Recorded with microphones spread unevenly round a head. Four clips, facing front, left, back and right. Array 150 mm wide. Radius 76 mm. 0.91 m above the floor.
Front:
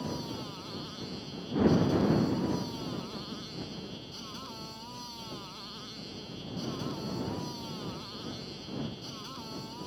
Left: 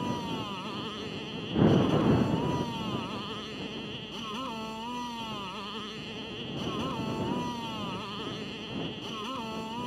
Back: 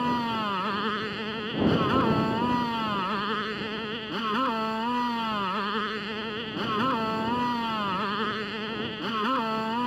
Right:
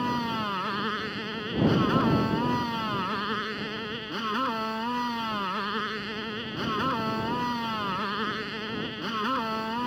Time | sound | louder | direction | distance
0.0 | a motorcycle | right 5 dB, back 11 dB | 160° right | ?